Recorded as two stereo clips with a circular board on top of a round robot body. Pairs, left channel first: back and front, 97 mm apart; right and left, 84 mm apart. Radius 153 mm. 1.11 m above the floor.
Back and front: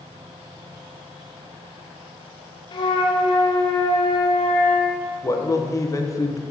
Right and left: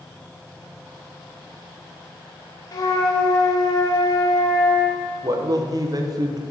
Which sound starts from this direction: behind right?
A flute, at 2.7 s.